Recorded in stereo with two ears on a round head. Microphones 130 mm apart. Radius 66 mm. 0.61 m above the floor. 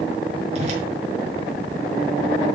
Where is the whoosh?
45° right (ahead or behind), 5.5 m.